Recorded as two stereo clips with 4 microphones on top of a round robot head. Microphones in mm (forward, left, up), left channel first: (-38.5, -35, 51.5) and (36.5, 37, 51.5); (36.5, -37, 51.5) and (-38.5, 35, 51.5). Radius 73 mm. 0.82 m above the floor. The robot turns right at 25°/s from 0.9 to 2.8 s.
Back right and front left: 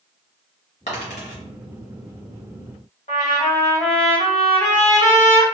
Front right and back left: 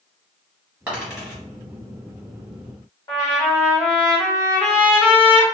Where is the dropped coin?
150° right, 1.3 m; by 1.4 s 135° right, 1.3 m.